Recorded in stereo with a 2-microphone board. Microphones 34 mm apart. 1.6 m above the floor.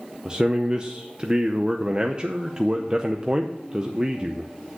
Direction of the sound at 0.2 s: 25° right (ahead or behind).